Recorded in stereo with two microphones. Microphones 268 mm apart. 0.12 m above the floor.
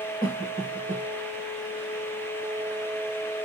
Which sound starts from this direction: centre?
A cough, at 0.2 s.